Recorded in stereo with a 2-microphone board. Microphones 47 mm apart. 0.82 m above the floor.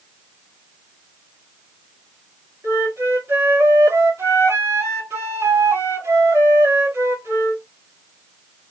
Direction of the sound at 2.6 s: 80° right.